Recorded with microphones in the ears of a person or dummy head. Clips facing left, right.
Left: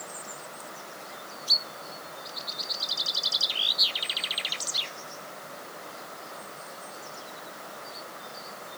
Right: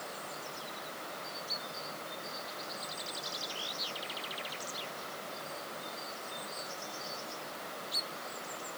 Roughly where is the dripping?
I don't hear dripping.